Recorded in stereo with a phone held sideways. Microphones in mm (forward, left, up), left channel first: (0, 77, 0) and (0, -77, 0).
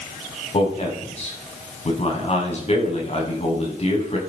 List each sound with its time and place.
0.5 s a man speaking: 45° left (ahead or behind), 7 m